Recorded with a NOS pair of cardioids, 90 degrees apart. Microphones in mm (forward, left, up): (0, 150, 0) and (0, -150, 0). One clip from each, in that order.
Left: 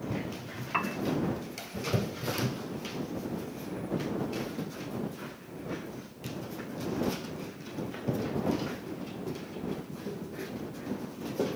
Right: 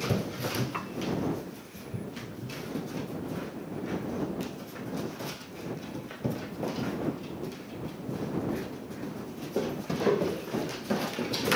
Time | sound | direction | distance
0.7 | a piano | 45° left | ?